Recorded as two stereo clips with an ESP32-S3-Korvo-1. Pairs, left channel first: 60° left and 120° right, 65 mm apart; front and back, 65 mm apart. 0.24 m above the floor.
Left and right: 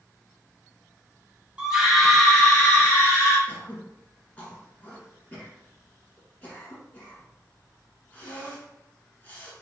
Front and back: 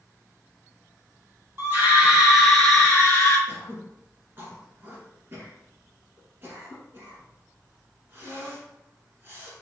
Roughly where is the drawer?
I don't hear a drawer.